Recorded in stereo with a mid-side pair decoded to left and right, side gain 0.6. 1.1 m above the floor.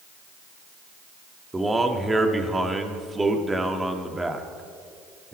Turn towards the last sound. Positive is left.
turn(degrees=-15)